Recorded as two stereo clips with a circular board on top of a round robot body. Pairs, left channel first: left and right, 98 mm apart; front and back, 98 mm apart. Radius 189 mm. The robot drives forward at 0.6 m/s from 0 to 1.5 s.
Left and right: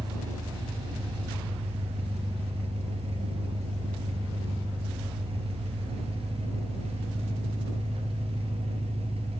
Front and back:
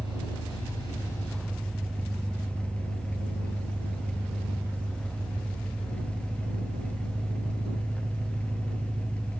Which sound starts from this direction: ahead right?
An engine running, at 0.0 s.